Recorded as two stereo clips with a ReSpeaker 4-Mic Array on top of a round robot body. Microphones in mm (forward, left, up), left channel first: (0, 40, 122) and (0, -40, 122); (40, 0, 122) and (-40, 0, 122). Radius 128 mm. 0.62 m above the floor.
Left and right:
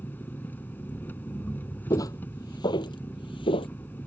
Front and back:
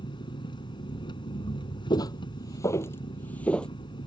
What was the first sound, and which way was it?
An engine running, 20° left.